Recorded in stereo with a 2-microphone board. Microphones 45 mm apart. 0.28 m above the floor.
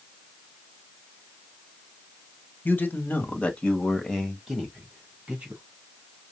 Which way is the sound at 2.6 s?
45° left (ahead or behind).